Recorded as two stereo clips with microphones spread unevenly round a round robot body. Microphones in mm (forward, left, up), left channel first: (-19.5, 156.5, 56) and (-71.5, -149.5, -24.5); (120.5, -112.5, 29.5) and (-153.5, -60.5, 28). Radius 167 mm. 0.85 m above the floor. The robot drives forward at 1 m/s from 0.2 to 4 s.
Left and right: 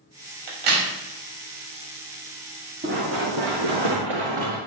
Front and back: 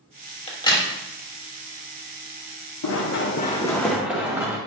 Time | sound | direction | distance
0.5 | a crack | 80° right | 2.5 m
2.8 | running footsteps | 30° right | 2 m